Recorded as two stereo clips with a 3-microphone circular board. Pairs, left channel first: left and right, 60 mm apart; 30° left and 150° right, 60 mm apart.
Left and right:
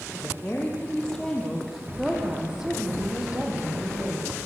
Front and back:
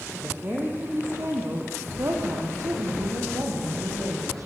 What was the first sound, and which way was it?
A woman speaking, 150° left.